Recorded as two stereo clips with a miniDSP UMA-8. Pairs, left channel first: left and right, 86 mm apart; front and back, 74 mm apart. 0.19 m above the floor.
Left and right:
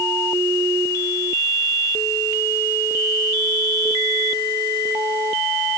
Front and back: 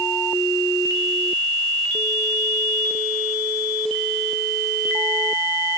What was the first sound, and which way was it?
Only background noise.